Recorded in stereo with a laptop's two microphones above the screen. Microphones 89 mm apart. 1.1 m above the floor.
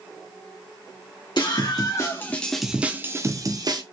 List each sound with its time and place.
1.4 s a scream: 55° left (ahead or behind), 1.0 m; by 3.8 s 50° right (ahead or behind), 1.1 m